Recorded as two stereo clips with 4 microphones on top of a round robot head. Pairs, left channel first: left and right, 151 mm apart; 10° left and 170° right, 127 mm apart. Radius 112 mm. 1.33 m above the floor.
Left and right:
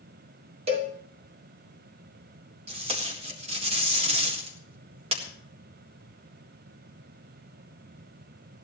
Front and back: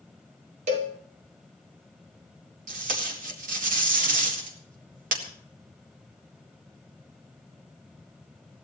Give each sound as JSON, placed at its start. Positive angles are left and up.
{"t": 0.7, "sound": "a cowbell", "azimuth_deg": -140, "distance_m": 1.2}
{"t": 2.7, "sound": "tape being pulled", "azimuth_deg": -145, "distance_m": 1.7}